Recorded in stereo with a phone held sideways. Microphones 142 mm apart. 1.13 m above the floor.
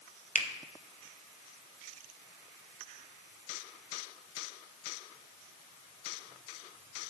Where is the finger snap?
65° left (ahead or behind), 0.9 m.